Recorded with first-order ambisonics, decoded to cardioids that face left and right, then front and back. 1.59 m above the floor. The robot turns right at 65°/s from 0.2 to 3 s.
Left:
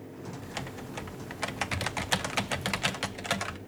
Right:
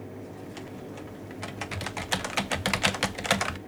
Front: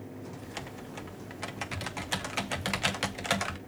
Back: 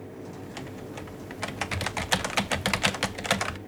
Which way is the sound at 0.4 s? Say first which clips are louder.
Left 1 dB, back 2 dB; 70° left.